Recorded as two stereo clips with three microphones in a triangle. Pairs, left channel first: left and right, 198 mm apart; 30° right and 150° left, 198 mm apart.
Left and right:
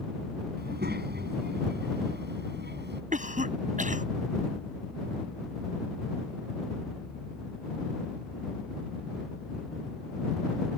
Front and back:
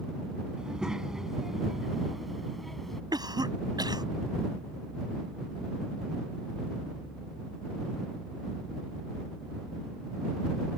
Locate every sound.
0.6 s a child speaking: 125° right; by 3.0 s 120° right
3.1 s a cough: 140° right